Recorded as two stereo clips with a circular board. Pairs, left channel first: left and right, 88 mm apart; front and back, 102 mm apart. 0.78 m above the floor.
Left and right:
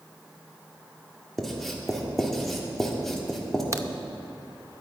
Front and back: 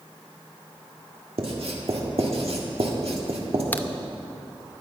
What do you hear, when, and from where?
1.4 s writing: straight behind, 1.7 m
3.7 s a crack: 60° right, 0.6 m